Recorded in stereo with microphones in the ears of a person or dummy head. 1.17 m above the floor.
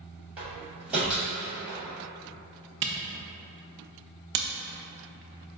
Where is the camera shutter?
50° right (ahead or behind), 0.5 m.